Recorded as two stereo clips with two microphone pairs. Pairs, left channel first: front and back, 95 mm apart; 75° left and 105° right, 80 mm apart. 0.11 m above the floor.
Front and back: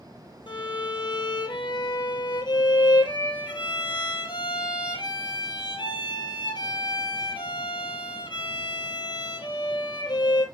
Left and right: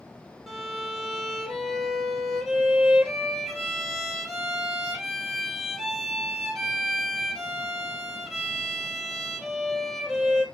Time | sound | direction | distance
0.5 | a violin | 15° right | 2.5 m